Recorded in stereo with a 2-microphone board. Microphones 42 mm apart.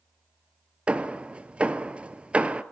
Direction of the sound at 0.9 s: 30° right (ahead or behind).